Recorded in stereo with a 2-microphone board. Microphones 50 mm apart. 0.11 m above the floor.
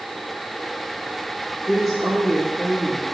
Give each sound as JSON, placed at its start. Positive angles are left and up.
{"t": 1.7, "sound": "a woman speaking", "side_deg": 5, "distance_m": 1.8}